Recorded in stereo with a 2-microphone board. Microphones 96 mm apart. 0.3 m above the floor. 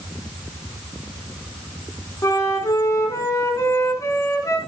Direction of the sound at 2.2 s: 35° left (ahead or behind).